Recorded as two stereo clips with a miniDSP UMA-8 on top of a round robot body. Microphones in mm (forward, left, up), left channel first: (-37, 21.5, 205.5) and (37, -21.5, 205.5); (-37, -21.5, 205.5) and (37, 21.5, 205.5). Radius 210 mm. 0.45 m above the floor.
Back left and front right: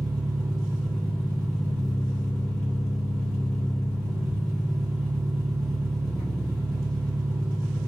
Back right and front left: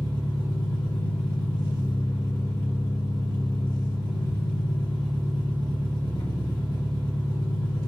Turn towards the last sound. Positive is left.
turn(degrees=-125)